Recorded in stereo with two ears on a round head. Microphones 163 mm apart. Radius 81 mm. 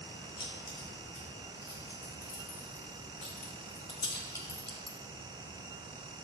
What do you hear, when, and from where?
0.4 s keys jangling: 50° left (ahead or behind), 3 m; by 5.0 s centre (ahead or behind), 0.8 m